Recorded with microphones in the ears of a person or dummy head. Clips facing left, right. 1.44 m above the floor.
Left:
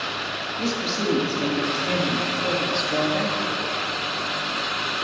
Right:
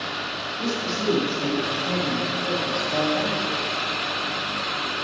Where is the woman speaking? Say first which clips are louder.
Left 1 dB; 30° left (ahead or behind), 2.5 m.